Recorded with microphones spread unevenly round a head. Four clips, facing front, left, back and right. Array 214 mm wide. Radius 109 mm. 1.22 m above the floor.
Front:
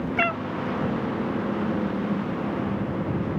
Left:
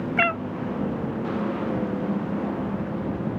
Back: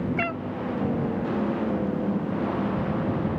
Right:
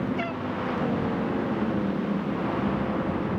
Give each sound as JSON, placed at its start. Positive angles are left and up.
{"t": 0.2, "sound": "a cat meowing", "azimuth_deg": 55}